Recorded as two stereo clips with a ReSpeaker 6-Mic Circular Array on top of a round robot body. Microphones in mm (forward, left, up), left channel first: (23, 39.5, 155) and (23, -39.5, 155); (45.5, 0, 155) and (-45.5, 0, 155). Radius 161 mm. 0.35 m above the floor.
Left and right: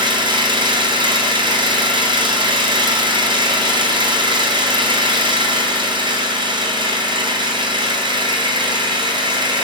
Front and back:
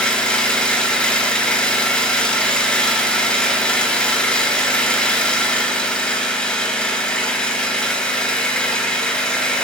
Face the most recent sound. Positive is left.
turn(degrees=-80)